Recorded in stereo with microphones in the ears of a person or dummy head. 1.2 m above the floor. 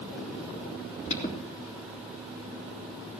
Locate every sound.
1.1 s an alarm: 35° left (ahead or behind), 3.5 m